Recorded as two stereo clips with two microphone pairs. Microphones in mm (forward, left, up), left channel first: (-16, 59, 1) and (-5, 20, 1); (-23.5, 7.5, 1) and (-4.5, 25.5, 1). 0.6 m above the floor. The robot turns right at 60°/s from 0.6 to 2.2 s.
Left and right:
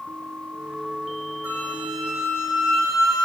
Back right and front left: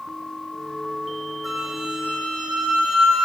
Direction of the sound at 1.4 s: 40° right.